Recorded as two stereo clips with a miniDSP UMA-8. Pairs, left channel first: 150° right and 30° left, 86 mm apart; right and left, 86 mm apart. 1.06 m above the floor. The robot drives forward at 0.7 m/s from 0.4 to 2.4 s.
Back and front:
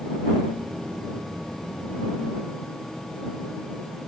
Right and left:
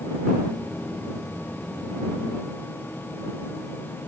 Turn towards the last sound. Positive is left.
No sound to turn to.